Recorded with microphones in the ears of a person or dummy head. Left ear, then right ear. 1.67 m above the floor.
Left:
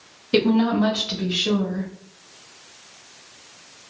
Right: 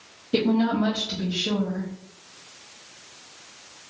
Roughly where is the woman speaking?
Left.